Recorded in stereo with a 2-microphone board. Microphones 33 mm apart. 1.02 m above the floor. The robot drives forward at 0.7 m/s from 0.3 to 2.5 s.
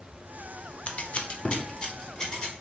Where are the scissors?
40° left (ahead or behind), 0.5 m; by 2.5 s 15° left (ahead or behind), 1.3 m.